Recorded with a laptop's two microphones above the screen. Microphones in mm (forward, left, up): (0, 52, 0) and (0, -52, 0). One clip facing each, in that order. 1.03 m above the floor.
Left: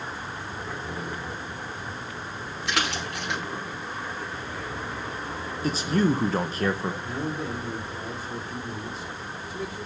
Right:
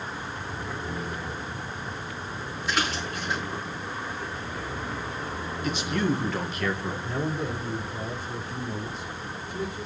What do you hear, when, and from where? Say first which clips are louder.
2.7 s a splash: even; 75° left (ahead or behind), 4 m
5.6 s a man speaking: left 4 dB; 35° left (ahead or behind), 1.1 m
7.0 s a man speaking: right 1 dB; centre (ahead or behind), 2.5 m